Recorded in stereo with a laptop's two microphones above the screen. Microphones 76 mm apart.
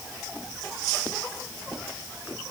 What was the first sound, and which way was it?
Only background noise.